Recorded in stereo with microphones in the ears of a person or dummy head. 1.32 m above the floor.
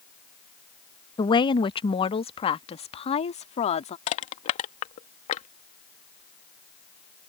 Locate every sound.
1.2 s a woman speaking: 20° left (ahead or behind); by 4.0 s 30° left (ahead or behind)
4.1 s crushing: 30° left (ahead or behind)